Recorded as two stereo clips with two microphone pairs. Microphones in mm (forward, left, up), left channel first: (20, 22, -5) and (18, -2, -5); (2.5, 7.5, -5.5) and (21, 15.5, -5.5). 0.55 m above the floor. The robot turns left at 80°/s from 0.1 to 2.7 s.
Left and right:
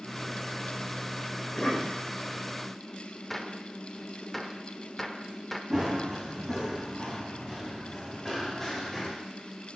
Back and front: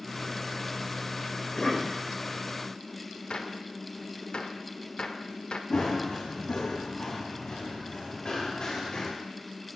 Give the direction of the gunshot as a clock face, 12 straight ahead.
6 o'clock.